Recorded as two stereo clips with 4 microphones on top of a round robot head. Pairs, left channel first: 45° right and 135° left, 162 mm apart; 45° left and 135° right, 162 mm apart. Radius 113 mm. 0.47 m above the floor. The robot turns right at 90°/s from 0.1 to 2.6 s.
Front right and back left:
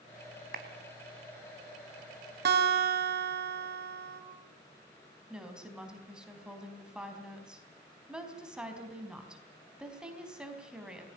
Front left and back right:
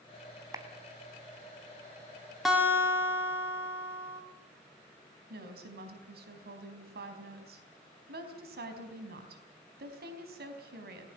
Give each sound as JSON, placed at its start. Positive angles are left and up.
{"t": 0.5, "sound": "a clap", "azimuth_deg": 155, "distance_m": 3.0}
{"t": 2.5, "sound": "a guitar", "azimuth_deg": 135, "distance_m": 4.0}
{"t": 5.3, "sound": "a woman speaking", "azimuth_deg": -140, "distance_m": 4.0}